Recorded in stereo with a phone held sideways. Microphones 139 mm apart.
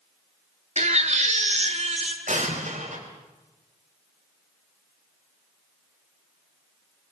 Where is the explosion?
65° right (ahead or behind), 4 m.